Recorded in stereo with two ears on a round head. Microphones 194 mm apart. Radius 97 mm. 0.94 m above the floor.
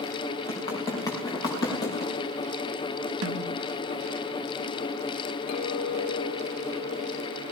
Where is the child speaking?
I don't hear a child speaking.